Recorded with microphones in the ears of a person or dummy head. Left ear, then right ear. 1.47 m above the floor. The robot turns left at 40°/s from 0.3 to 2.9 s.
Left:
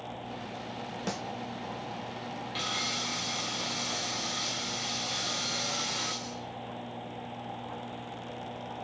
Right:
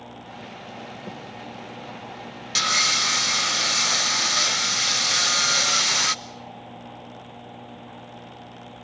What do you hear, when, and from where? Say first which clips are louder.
1.1 s a snare drum: left 2 dB; 65° left (ahead or behind), 1.3 m; by 1.2 s 75° left (ahead or behind), 1.3 m
2.5 s sawing: right 13 dB; 70° right (ahead or behind), 0.8 m; by 6.2 s 65° right (ahead or behind), 0.8 m